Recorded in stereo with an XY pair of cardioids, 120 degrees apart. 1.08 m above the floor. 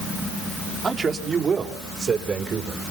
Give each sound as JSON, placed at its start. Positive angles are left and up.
{"t": 0.8, "sound": "a man speaking", "azimuth_deg": -30, "distance_m": 3.0}